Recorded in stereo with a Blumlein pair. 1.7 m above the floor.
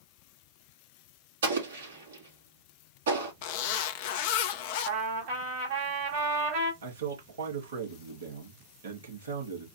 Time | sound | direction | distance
1.4 | an explosion | 65° right | 3 m
3.4 | a zipper | 50° left | 0.7 m
4.8 | a trumpet | 50° right | 3.5 m
6.8 | a man speaking | 65° right | 2.5 m